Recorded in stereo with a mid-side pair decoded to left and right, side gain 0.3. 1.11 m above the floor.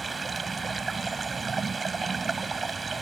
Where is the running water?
50° right.